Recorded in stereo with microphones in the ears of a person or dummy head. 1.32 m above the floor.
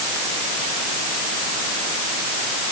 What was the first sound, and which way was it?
Only background noise.